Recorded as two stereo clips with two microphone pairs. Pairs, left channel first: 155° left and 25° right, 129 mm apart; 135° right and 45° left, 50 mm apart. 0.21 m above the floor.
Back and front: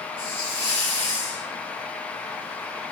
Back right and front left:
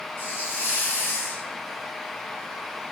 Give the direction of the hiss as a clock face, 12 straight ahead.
6 o'clock.